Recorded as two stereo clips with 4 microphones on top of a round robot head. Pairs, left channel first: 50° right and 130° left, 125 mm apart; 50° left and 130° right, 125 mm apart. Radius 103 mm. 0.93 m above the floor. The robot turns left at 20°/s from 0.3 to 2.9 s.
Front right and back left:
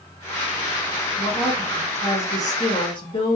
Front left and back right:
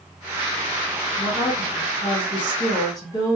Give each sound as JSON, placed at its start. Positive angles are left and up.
{"t": 1.2, "sound": "a woman speaking", "azimuth_deg": 35, "distance_m": 1.9}